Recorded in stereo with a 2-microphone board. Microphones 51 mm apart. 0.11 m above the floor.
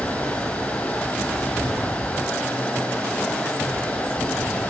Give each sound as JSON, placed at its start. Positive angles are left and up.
{"t": 0.0, "sound": "running water", "side_deg": 25, "distance_m": 3.5}